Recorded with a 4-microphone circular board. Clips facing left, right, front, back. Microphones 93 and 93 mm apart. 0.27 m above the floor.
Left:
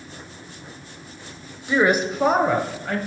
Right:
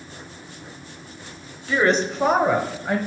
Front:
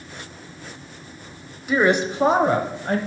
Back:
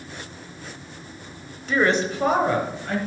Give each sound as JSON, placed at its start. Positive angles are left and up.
{"t": 1.7, "sound": "a woman speaking", "azimuth_deg": 60, "distance_m": 1.0}